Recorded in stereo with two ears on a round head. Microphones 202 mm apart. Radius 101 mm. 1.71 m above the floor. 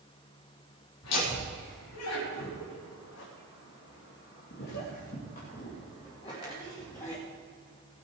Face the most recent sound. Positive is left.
turn(degrees=15)  # may be behind; listen again after turning